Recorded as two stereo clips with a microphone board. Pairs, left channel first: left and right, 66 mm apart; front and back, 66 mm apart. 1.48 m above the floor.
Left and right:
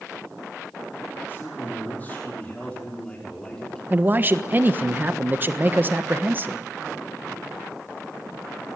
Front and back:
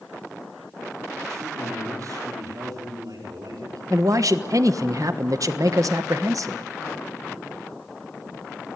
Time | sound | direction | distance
1.3 | a man speaking | 145° left | 4 m
3.9 | a man speaking | 150° right | 1.2 m